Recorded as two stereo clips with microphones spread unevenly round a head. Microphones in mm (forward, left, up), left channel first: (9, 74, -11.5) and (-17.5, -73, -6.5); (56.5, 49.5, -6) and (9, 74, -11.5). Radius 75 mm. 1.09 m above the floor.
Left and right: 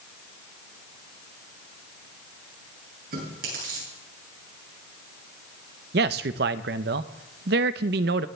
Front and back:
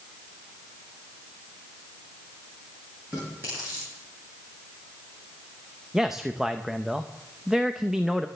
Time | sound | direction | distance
3.1 | chewing | 130° right | 8.5 m
5.9 | a man speaking | 120° right | 0.7 m